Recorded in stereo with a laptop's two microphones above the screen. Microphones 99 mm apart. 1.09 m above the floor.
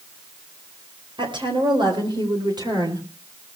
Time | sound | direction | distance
1.2 | a woman speaking | 55° right (ahead or behind) | 4.5 m